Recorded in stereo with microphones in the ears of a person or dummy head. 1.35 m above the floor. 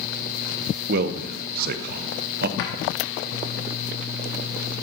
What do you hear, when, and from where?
0.9 s a man speaking: 55° right (ahead or behind), 0.6 m
2.6 s a drawer: 65° left (ahead or behind), 1.3 m